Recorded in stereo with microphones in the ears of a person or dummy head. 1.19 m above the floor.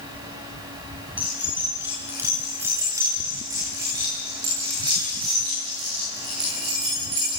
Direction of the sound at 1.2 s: 10° right (ahead or behind).